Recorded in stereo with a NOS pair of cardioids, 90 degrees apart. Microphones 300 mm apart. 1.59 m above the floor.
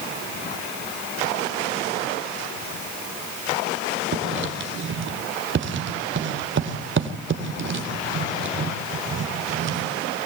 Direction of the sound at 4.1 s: 40° right.